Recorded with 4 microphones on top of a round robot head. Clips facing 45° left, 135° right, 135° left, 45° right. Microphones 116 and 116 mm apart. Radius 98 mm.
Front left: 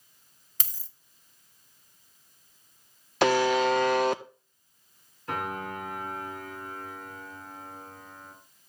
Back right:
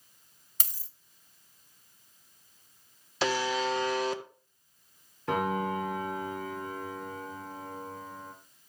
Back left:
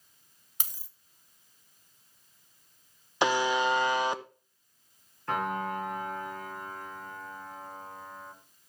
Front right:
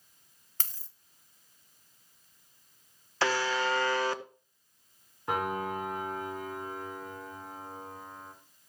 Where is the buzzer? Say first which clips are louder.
Front left 7 dB, back left 3 dB; 60° left, 0.8 m.